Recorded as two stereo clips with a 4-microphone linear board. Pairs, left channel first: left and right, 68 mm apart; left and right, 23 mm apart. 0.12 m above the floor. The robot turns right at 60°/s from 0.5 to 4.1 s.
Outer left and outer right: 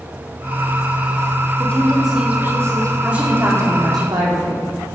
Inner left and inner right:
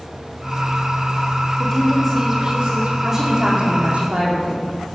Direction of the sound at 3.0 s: 165° right.